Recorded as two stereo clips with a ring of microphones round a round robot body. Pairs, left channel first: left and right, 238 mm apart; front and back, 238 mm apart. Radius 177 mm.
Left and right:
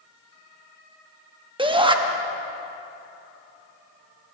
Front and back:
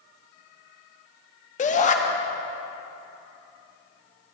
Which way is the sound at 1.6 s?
35° right.